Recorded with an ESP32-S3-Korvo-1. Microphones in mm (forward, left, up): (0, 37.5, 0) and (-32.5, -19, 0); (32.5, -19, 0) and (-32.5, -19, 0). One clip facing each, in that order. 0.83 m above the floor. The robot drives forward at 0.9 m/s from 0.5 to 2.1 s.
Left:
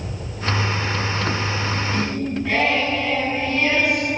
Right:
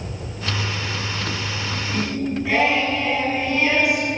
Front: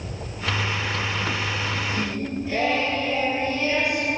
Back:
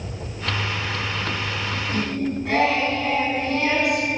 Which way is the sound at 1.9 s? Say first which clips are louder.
Left 1 dB, back 3 dB; 155° left.